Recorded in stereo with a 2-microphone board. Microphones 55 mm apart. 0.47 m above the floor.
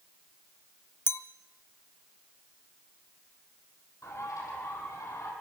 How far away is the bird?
About 5 m.